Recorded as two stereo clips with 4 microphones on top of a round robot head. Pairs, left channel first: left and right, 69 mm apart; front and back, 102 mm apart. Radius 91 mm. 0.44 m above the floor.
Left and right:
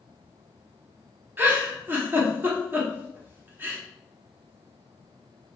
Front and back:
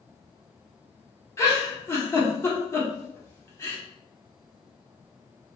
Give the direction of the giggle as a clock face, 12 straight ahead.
2 o'clock.